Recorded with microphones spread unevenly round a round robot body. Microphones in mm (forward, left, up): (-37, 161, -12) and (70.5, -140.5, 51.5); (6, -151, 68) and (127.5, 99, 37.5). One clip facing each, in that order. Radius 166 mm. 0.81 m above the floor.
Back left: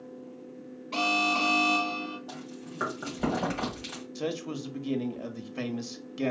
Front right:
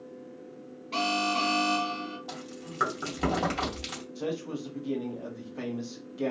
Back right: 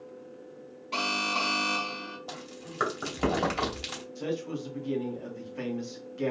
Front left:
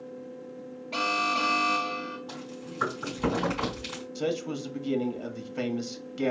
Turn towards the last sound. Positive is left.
turn(degrees=90)